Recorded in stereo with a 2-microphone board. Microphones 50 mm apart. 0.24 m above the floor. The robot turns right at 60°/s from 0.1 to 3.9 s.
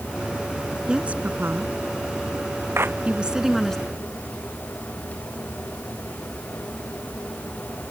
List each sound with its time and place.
0.9 s a woman speaking: 15° right (ahead or behind); by 3.8 s 10° left (ahead or behind)
2.8 s a clap: 55° right (ahead or behind); by 3.0 s 45° right (ahead or behind)